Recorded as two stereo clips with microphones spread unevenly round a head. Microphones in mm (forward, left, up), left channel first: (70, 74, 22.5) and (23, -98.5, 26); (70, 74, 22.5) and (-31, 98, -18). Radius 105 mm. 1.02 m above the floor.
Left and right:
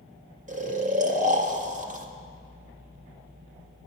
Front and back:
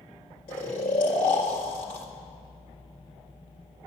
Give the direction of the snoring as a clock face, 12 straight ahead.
2 o'clock.